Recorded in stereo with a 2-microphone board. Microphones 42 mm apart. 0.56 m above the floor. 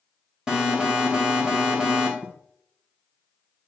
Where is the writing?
35° right (ahead or behind), 2.5 m.